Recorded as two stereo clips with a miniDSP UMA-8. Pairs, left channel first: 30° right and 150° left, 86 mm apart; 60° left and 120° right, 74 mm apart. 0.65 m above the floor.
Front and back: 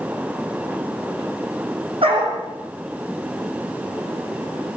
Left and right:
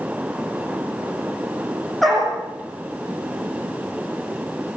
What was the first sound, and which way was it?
A dog barking, 150° left.